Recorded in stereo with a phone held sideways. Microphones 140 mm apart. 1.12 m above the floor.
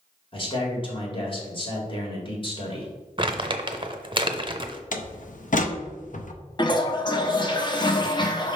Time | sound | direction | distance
0.3 | a man speaking | 35° left (ahead or behind) | 1.8 m
3.2 | crumpling | 35° right (ahead or behind) | 0.6 m
4.9 | a door slam | 60° left (ahead or behind) | 0.6 m
6.6 | a toilet flushing | 30° left (ahead or behind) | 0.7 m